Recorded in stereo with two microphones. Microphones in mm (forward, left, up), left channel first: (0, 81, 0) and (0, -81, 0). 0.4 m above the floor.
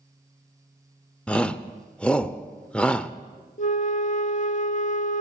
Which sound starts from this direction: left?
A flute, at 3.6 s.